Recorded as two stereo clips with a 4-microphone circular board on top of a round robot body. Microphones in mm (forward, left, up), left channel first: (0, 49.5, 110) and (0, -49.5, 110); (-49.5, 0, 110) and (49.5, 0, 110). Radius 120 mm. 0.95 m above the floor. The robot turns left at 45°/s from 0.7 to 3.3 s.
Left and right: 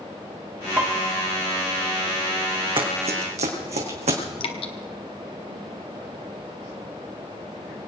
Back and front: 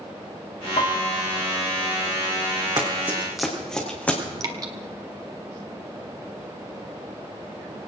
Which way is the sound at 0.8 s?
160° right.